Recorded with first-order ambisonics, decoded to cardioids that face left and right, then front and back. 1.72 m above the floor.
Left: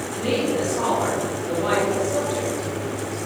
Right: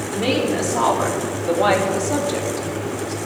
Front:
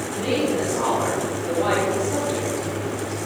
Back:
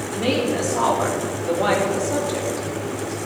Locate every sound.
0.1 s a woman speaking: 120° right, 4 m; by 3.2 s 95° right, 2.5 m